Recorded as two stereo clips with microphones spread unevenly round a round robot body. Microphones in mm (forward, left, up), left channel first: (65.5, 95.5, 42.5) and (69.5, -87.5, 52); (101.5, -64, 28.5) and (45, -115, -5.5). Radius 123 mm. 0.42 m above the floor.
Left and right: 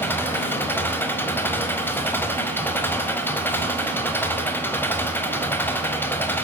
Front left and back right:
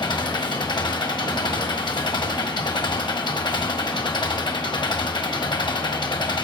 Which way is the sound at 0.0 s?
15° left.